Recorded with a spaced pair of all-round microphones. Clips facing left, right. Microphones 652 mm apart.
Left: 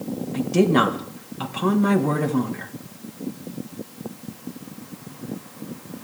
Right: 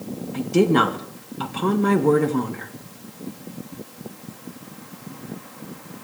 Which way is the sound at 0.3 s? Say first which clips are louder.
Right 1 dB; 10° left (ahead or behind).